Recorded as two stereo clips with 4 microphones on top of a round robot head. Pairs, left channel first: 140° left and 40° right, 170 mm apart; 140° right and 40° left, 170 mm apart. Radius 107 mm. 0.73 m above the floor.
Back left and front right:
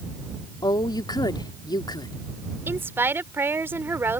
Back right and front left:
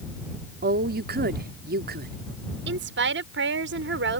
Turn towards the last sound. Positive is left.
turn(degrees=35)